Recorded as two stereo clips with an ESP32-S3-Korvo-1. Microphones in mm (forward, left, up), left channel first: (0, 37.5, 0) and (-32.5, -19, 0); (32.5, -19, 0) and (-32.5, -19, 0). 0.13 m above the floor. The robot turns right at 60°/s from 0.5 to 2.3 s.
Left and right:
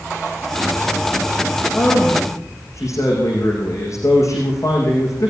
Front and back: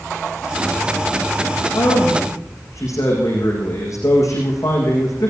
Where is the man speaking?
5° right, 7.5 m; by 5.3 s 30° left, 7.5 m.